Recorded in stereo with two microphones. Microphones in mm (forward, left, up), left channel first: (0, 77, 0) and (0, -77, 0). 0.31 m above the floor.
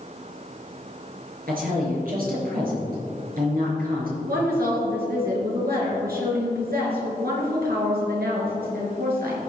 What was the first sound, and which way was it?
A woman speaking, 70° right (ahead or behind).